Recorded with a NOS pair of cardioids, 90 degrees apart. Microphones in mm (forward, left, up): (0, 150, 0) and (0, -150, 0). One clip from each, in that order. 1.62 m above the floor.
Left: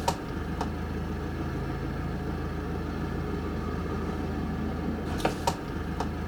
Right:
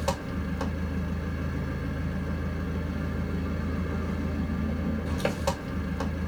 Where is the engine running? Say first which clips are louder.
Left 1 dB; 15° left, 1.6 m.